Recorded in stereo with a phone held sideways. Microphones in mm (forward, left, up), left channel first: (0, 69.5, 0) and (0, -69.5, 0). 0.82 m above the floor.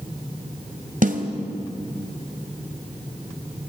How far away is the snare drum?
About 2.5 m.